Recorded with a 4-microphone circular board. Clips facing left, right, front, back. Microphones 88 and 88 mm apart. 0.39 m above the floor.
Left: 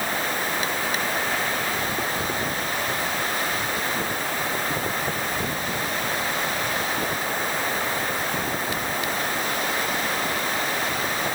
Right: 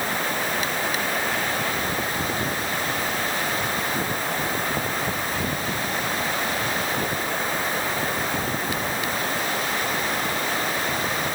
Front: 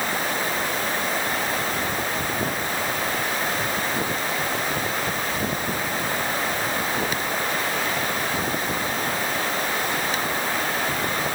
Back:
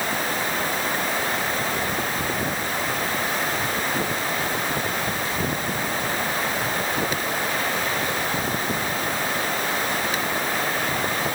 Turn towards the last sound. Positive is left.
No sound to turn to.